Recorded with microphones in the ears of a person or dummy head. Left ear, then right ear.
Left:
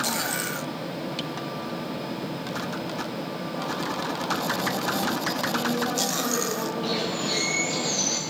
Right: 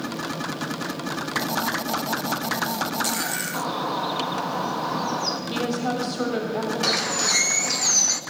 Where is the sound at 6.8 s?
60° right (ahead or behind), 1.1 m.